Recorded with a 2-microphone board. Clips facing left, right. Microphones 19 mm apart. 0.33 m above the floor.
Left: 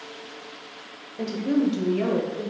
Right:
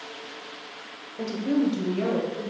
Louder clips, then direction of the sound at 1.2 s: Left 1 dB; 5° left (ahead or behind).